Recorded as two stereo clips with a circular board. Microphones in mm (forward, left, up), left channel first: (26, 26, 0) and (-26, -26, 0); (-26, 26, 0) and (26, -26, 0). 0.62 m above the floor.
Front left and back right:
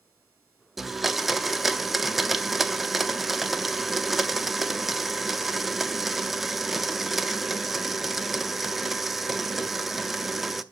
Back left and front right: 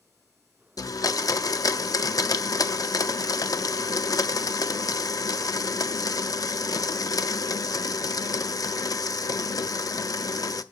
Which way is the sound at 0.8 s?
140° left.